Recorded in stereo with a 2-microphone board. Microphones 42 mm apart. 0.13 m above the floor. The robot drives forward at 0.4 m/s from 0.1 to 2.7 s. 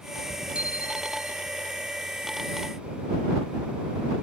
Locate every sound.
0.6 s a bicycle bell: 30° right (ahead or behind)